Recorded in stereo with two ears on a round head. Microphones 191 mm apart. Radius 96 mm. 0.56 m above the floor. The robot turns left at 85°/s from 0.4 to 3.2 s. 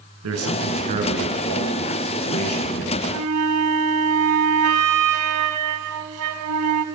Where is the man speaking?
105° right, 6.5 m; by 3.0 s 35° left, 6.5 m.